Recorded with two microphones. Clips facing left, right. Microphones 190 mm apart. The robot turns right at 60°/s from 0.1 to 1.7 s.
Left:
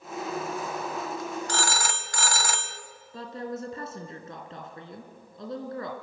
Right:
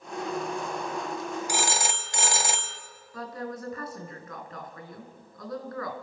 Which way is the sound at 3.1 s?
25° left (ahead or behind).